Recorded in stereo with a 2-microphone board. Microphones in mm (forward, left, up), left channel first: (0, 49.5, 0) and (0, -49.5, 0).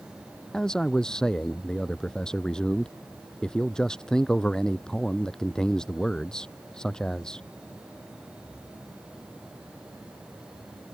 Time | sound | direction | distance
0.5 | a man speaking | 10° left (ahead or behind) | ?